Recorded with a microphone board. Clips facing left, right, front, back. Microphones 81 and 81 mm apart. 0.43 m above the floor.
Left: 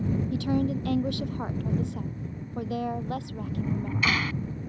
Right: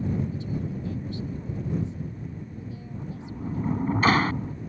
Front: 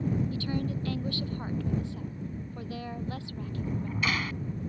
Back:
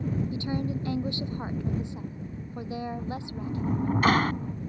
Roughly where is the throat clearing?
No throat clearing in this recording.